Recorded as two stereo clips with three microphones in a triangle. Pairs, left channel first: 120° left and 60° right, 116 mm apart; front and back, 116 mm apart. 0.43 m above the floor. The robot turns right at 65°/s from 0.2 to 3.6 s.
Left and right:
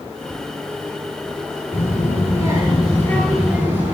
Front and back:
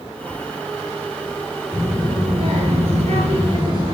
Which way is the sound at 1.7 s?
105° left.